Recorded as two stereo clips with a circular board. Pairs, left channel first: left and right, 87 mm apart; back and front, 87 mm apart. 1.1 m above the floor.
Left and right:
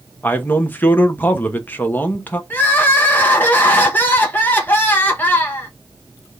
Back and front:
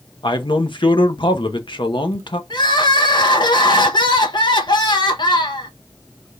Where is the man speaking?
160° left, 1.0 m.